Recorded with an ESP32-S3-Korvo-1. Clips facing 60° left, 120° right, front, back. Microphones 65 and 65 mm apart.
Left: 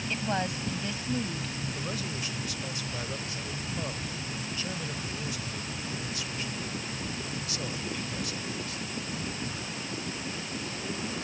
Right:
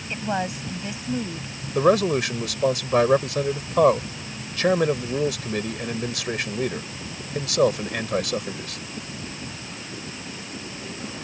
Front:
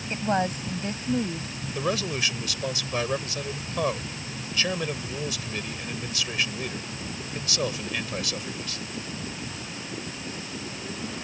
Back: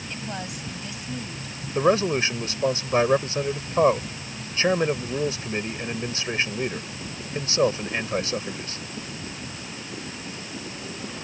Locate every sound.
0.1 s a woman speaking: 50° right
1.8 s a man speaking: 125° right